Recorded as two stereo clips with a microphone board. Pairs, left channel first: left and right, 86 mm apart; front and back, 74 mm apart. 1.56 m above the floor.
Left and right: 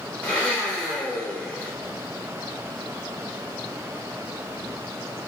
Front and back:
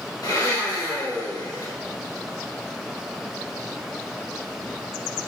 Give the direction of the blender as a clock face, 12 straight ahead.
11 o'clock.